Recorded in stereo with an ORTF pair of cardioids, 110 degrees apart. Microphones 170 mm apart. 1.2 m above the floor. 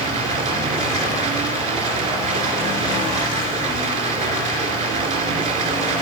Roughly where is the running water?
Ahead right.